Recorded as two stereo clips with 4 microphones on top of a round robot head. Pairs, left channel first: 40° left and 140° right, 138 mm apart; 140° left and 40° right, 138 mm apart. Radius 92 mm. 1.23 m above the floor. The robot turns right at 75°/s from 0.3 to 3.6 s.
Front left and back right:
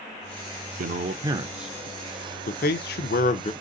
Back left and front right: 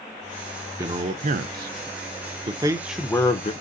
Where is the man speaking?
115° right, 0.5 m; by 3.5 s 90° left, 0.5 m.